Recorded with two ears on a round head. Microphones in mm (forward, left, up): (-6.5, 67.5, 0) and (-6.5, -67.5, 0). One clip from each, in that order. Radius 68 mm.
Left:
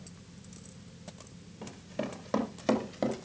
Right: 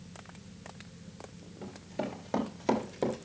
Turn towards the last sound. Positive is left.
turn(degrees=15)  # may be behind; listen again after turning